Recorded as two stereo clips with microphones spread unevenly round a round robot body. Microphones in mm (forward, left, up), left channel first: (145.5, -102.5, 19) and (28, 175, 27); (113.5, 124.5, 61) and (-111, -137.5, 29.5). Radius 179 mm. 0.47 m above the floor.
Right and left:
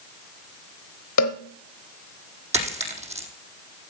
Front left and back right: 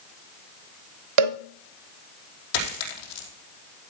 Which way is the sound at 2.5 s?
45° left.